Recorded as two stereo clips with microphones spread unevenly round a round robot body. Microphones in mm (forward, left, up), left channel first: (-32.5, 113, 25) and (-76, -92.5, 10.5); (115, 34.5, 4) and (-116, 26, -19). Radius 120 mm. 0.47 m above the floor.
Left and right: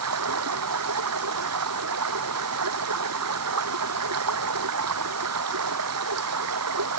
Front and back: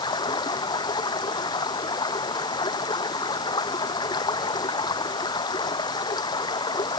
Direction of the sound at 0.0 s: 75° right.